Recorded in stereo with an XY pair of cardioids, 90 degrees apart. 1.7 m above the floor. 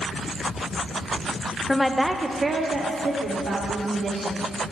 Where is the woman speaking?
20° left, 0.6 m; by 4.4 s 70° right, 2 m.